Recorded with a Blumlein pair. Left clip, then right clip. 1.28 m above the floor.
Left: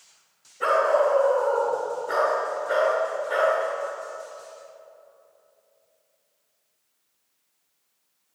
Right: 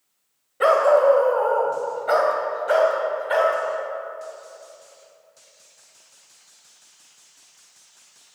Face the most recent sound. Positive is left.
turn(degrees=-65)